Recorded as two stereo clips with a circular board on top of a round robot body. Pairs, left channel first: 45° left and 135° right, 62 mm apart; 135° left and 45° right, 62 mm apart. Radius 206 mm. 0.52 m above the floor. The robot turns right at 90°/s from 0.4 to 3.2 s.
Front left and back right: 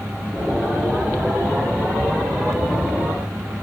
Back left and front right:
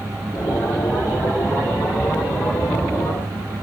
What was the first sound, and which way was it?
Only background noise.